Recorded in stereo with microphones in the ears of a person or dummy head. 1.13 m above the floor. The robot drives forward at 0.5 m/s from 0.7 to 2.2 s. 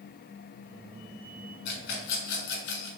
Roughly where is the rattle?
Left.